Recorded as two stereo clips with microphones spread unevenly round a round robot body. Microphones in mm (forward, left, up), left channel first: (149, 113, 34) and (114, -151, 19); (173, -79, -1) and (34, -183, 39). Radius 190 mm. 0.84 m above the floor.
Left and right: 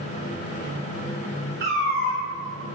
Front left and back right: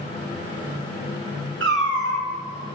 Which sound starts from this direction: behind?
A cat meowing, at 1.6 s.